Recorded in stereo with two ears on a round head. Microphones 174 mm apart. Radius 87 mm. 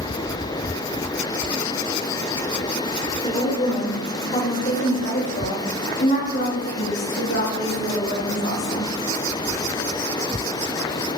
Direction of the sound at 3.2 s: 20° left (ahead or behind).